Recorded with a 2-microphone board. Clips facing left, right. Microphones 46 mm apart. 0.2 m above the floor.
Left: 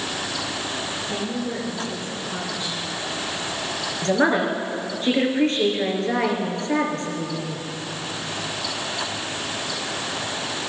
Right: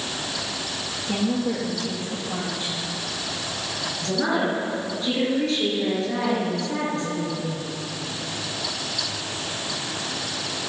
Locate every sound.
1.1 s a woman speaking: 45° right (ahead or behind), 5.5 m
4.0 s a woman speaking: 45° left (ahead or behind), 3.5 m